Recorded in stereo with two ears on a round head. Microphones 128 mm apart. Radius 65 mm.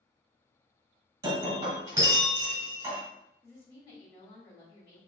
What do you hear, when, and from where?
1.2 s breaking glass: 20° right (ahead or behind), 1.7 m
3.4 s a woman speaking: 35° left (ahead or behind), 1.5 m